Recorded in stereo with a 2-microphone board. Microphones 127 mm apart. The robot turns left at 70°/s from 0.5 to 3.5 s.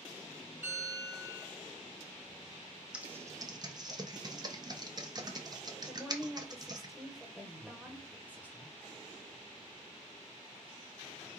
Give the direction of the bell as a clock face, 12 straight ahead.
1 o'clock.